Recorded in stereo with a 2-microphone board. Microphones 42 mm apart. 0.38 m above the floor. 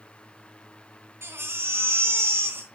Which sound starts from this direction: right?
A baby crying, at 1.2 s.